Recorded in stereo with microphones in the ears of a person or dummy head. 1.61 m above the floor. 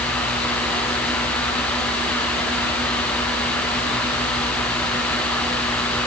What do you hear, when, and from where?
Only background noise.